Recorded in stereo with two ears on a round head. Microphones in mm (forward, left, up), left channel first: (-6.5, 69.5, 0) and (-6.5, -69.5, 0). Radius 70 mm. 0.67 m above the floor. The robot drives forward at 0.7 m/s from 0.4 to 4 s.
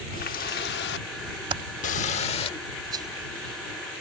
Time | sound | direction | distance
0.1 | a running tap | 60° left (ahead or behind) | ?
1.5 | typing on a keyboard | 30° right (ahead or behind) | ?
2.9 | a rattle | 25° right (ahead or behind) | ?